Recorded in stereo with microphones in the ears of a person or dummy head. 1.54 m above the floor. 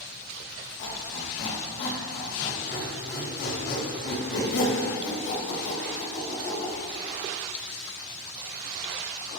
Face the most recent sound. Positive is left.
turn(degrees=70)  # may be behind; listen again after turning